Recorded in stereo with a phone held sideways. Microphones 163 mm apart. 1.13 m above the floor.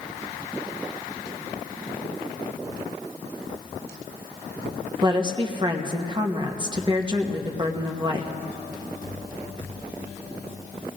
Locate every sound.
5.0 s a woman speaking: 30° right (ahead or behind), 1.0 m